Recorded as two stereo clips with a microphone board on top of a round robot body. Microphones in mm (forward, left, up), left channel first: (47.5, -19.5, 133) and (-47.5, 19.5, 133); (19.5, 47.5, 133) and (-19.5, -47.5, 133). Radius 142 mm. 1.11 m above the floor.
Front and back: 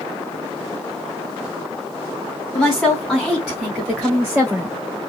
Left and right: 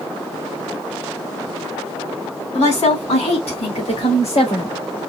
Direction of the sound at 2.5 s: 60° left.